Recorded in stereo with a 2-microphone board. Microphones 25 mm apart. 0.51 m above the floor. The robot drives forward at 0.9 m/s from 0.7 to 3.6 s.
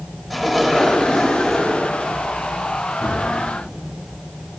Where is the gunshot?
45° right (ahead or behind), 3.5 m.